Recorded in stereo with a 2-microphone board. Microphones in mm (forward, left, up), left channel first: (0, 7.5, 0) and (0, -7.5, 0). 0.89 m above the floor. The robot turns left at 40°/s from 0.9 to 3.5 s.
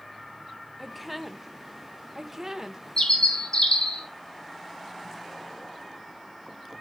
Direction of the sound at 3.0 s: 60° left (ahead or behind).